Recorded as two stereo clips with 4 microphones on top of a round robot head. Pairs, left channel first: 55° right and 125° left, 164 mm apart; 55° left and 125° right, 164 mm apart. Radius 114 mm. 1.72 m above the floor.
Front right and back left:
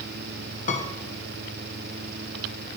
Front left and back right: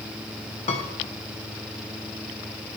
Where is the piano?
5° right, 0.8 m.